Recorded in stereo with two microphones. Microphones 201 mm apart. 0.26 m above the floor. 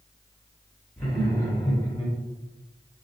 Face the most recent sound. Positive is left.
turn(degrees=30)  # may be behind; listen again after turning